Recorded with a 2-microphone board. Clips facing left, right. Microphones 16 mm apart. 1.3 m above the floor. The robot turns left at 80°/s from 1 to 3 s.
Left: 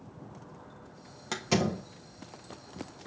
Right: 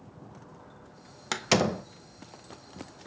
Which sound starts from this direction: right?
A door slam, at 1.3 s.